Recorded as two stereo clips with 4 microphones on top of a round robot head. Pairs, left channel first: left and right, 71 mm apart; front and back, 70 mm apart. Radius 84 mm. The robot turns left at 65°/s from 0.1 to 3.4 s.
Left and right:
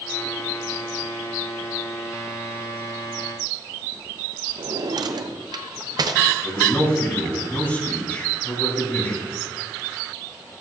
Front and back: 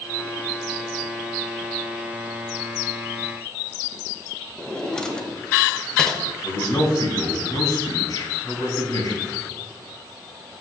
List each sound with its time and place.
4.6 s a drawer: 80° right, 0.9 m
6.4 s a man speaking: 30° left, 3.5 m